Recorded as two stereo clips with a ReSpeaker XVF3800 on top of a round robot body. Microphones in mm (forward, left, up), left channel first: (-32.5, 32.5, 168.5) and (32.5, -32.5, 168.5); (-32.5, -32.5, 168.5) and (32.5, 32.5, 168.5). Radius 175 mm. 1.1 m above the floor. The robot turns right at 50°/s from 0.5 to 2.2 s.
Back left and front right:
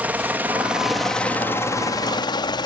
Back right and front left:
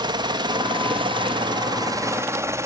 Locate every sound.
0.0 s a helicopter: 25° left; by 2.7 s 100° left